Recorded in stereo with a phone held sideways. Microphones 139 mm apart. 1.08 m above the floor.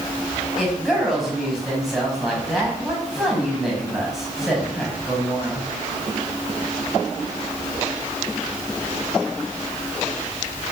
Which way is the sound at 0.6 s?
Centre (ahead or behind).